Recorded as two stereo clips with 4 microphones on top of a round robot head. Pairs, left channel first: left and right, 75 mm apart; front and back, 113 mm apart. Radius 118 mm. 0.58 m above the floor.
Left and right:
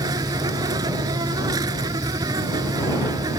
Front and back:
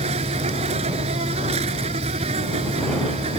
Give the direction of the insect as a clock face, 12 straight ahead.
5 o'clock.